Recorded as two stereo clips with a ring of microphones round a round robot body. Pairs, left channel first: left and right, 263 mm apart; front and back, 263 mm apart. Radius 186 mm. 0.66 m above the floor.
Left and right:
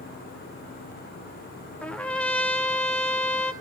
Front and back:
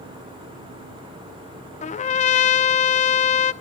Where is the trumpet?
10° left, 0.6 m.